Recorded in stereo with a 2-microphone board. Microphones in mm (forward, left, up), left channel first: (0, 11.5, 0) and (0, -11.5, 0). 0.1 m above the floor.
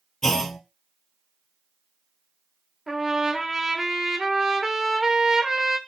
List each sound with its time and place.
0.2 s a clunk: 20° left (ahead or behind), 0.9 m
2.9 s a trumpet: 15° right (ahead or behind), 0.8 m